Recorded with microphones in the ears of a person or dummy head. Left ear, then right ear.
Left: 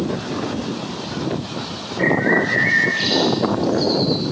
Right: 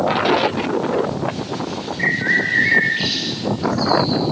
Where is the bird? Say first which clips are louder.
Even; 5° right (ahead or behind), 6 m.